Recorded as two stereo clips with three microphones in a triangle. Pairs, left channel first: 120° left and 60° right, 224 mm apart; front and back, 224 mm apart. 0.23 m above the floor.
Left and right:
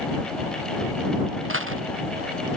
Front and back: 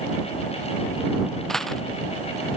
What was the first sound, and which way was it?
A dropped coin, 90° right.